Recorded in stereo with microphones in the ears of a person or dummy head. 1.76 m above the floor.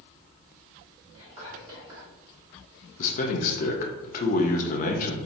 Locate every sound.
1.1 s whispering: 20° right (ahead or behind), 1.8 m
3.0 s a man speaking: 45° left (ahead or behind), 0.7 m